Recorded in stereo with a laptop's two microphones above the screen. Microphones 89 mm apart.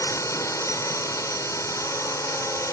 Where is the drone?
35° left (ahead or behind).